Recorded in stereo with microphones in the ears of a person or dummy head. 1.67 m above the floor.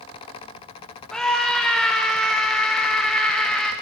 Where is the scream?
5° right (ahead or behind), 0.6 m.